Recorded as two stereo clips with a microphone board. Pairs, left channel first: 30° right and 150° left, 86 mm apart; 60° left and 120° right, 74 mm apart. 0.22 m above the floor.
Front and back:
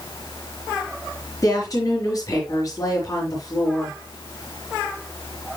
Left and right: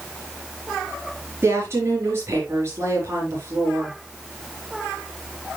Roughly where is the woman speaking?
Right.